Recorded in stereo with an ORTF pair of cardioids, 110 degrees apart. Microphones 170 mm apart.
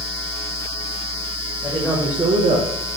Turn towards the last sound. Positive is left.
turn(degrees=-60)